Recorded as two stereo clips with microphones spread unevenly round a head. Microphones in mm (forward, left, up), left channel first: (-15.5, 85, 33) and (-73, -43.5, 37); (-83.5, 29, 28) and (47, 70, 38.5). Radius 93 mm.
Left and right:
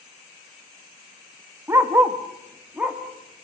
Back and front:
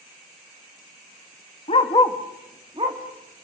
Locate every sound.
1.7 s a dog barking: 170° right, 1.3 m; by 3.5 s 30° right, 2.5 m